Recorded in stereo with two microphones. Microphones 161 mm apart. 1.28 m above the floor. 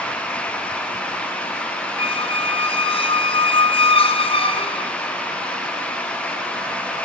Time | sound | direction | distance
2.0 | a squeak | 35° left (ahead or behind) | 0.7 m